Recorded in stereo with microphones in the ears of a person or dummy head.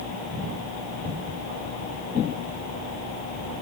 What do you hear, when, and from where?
Only background noise.